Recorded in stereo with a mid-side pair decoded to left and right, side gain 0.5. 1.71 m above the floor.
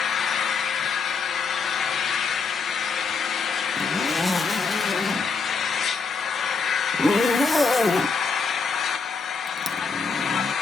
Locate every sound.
0.0 s an engine running: 50° left, 1.3 m
3.8 s a zipper: 10° left, 1.2 m